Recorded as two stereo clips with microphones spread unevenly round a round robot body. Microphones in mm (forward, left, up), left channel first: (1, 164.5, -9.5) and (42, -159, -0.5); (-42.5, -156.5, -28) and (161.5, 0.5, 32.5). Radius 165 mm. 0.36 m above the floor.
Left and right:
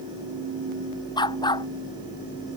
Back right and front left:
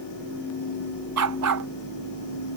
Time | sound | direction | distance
1.2 | a dog barking | 20° left | ?